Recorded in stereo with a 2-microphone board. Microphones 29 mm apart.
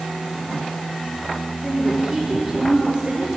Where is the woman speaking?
20° right (ahead or behind), 4.5 m; by 3.3 s 30° right (ahead or behind), 3.5 m.